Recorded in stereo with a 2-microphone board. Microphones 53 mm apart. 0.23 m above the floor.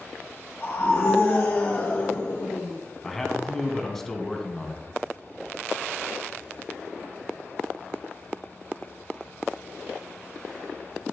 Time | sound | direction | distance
0.6 | a scream | 40° left (ahead or behind) | 5 m
3.0 | a man speaking | 5° left (ahead or behind) | 2 m